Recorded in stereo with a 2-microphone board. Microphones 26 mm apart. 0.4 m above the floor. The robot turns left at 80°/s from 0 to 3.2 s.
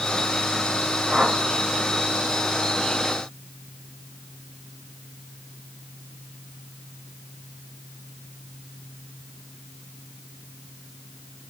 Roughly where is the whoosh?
Right.